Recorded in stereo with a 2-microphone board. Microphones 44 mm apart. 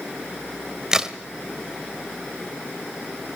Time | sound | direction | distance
0.9 | a crack | 15° right (ahead or behind) | 1.6 m